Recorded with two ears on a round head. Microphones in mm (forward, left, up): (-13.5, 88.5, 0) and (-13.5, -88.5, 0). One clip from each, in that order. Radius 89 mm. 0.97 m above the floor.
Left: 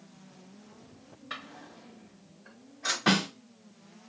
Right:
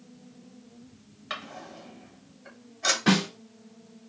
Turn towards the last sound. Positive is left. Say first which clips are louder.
# left 2 dB
turn(degrees=20)  # may be behind; listen again after turning